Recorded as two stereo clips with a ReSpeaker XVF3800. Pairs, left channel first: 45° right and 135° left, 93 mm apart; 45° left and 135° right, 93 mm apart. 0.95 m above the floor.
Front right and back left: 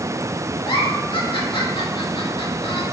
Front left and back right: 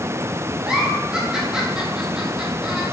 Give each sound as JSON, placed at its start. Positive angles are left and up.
{"t": 0.7, "sound": "a giggle", "azimuth_deg": -55, "distance_m": 1.8}